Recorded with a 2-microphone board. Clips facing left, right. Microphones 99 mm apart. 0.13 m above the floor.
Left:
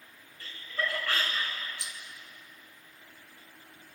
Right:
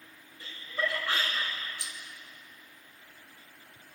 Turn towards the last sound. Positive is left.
turn(degrees=20)  # may be behind; listen again after turning